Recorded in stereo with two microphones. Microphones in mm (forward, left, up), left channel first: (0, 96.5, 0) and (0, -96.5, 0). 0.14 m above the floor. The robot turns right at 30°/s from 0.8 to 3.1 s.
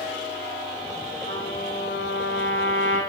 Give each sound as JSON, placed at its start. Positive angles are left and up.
{"t": 1.3, "sound": "a trumpet", "azimuth_deg": 50, "distance_m": 8.0}